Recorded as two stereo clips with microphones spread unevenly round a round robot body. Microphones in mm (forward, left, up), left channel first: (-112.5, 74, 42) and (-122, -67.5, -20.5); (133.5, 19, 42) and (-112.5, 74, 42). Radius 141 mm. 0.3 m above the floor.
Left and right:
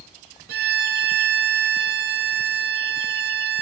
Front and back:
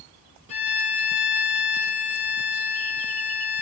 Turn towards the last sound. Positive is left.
turn(degrees=-80)